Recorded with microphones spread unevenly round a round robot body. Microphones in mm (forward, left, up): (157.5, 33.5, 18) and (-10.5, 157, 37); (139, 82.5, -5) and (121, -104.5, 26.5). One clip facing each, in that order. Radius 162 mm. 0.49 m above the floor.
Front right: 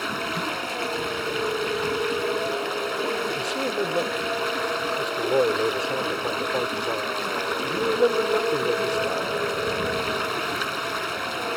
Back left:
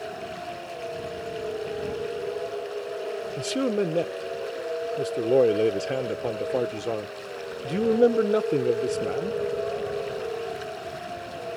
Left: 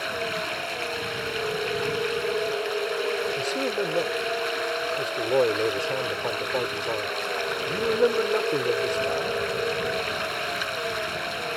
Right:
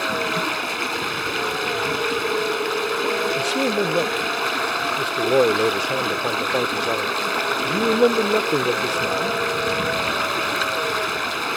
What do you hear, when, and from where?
0.0 s running water: 75° right
3.4 s a man speaking: 160° right